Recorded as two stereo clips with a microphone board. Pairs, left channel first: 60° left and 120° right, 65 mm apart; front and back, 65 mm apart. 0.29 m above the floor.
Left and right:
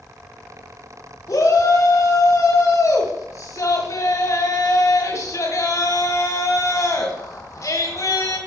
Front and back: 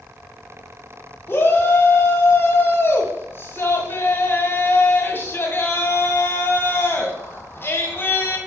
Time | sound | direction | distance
1.3 | a shout | 45° left | 2 m